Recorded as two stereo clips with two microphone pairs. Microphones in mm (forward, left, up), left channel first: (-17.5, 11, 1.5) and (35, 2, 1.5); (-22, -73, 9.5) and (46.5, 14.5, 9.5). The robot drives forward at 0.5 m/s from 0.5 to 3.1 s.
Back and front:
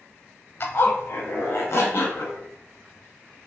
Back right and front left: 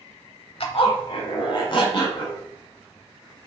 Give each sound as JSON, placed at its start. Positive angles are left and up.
{"t": 0.6, "sound": "a zipper", "azimuth_deg": -150, "distance_m": 0.6}